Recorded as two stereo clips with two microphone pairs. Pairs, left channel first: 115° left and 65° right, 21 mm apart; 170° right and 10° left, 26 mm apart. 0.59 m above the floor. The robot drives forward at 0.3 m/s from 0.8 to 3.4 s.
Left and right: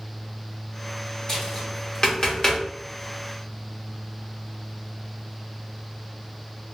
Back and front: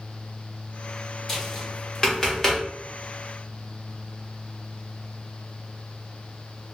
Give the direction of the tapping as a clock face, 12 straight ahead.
8 o'clock.